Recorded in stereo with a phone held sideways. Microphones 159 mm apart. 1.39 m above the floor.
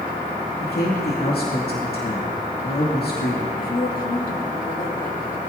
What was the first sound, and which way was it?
A man speaking, 80° left.